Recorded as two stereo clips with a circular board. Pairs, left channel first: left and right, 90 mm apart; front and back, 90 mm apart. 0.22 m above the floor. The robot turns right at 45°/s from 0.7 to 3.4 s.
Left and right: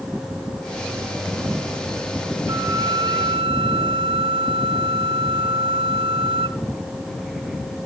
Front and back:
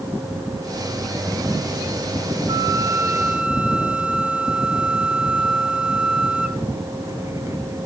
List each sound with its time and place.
2.5 s a flute: 140° right, 0.9 m; by 6.6 s 100° right, 0.9 m